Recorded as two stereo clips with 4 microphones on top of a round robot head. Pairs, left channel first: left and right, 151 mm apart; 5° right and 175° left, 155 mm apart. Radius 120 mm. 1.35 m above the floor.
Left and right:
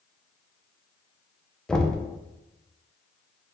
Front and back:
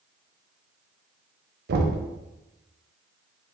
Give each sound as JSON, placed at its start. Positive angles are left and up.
{"t": 1.7, "sound": "knocking", "azimuth_deg": 175, "distance_m": 0.6}